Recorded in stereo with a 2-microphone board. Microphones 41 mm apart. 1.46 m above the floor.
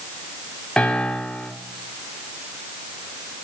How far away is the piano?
About 1.6 m.